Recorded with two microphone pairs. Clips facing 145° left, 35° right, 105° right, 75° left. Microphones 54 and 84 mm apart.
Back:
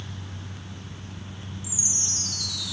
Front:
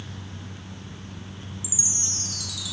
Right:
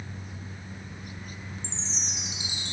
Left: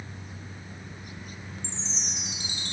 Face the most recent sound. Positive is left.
turn(degrees=105)